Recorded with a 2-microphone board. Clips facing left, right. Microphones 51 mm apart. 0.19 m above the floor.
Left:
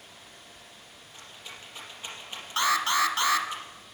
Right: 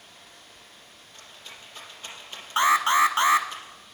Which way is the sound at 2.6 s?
25° right (ahead or behind).